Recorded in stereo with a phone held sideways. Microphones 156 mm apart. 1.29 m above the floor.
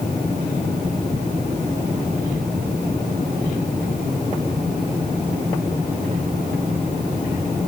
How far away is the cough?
I don't hear a cough.